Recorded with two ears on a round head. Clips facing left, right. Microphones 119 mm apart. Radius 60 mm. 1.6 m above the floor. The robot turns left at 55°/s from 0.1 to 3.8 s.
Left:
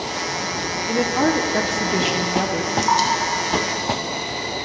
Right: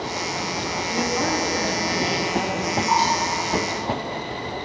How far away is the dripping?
About 3.5 m.